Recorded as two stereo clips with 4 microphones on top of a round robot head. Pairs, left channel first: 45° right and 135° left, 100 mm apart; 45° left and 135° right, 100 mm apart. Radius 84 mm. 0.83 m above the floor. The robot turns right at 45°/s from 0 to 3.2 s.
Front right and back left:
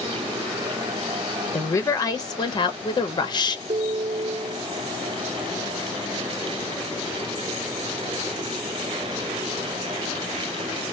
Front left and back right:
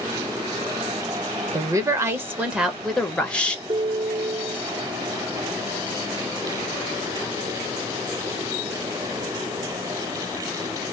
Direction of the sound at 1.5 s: 105° right.